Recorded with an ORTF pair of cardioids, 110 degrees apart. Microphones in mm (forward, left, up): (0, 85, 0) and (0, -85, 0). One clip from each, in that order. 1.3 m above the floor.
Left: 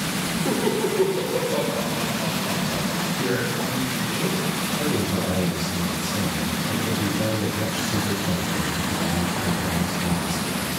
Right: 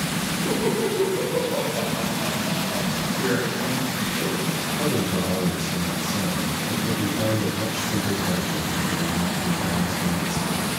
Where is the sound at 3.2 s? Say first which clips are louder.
Right 2 dB; 25° left, 5.5 m.